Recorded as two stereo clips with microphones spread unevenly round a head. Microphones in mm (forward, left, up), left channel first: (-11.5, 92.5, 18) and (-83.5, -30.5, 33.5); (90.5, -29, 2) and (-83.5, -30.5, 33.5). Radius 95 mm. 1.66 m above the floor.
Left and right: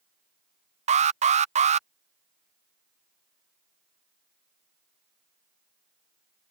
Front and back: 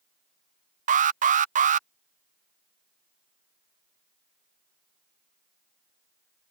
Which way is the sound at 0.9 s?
140° right.